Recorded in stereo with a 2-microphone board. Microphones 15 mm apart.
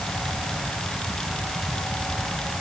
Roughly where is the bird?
No bird in this recording.